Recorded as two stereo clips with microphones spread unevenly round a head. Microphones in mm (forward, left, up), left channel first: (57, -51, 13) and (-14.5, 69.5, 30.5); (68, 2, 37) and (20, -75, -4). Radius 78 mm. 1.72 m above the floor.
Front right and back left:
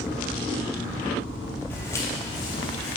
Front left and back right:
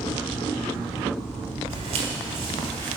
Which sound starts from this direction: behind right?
Footsteps, at 1.7 s.